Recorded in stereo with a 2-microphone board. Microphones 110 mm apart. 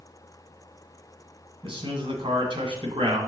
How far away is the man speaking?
About 1.9 m.